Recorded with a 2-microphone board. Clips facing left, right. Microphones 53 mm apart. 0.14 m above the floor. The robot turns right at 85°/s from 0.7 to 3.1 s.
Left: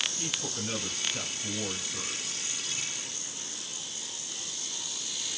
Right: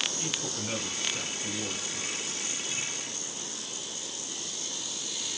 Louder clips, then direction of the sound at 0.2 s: Right 1 dB; 10° left (ahead or behind).